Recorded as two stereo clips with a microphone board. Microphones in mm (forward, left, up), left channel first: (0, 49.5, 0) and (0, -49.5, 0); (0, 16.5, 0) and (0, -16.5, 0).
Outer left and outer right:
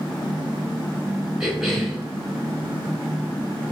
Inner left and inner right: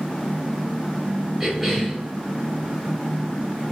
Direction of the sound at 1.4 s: 5° right (ahead or behind).